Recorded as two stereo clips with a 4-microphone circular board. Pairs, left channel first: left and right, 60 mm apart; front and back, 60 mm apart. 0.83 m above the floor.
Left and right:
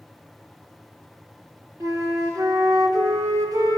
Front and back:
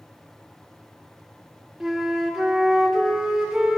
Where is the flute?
95° right, 0.8 m.